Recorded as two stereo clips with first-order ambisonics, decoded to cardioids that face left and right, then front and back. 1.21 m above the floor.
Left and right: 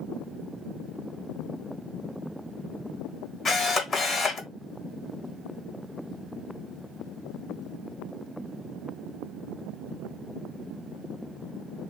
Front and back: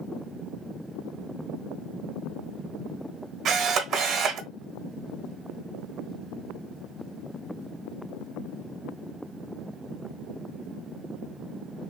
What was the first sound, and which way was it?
A camera shutter, 140° left.